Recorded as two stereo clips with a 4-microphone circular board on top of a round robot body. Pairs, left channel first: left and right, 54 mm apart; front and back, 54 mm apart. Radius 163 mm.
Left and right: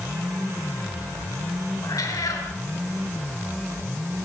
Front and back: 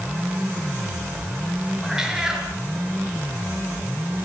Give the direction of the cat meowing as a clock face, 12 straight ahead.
9 o'clock.